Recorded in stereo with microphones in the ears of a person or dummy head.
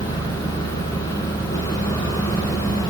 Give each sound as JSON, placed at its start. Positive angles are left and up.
{"t": 0.0, "sound": "an engine running", "side_deg": 20, "distance_m": 5.5}